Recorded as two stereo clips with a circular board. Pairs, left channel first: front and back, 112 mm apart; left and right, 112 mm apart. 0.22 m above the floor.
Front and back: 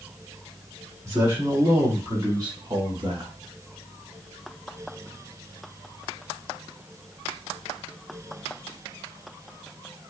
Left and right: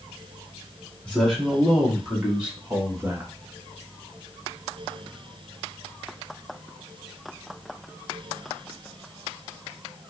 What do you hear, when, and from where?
1.1 s a man speaking: 160° left, 1.8 m; by 3.3 s 155° right, 2.5 m